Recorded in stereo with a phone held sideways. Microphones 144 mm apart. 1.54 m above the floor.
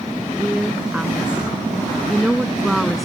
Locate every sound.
0.4 s a woman speaking: 10° right (ahead or behind); by 3.1 s centre (ahead or behind)